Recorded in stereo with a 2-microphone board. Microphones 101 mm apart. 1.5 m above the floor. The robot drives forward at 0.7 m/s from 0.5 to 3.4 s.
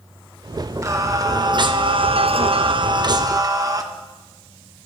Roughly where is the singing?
Right.